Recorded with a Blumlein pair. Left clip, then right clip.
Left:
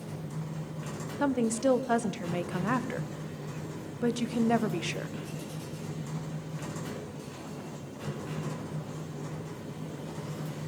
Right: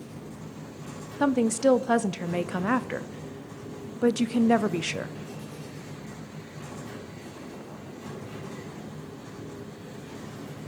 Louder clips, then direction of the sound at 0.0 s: Left 1 dB; 50° left.